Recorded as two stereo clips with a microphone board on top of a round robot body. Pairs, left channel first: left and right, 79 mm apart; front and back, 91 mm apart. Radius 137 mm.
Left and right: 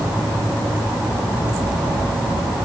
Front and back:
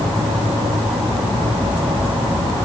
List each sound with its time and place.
Only background noise.